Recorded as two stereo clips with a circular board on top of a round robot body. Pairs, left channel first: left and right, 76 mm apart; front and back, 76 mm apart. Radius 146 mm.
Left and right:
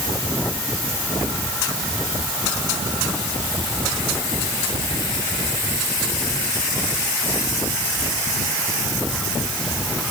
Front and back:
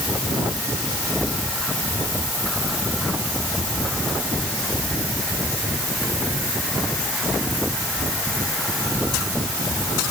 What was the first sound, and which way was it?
Only background noise.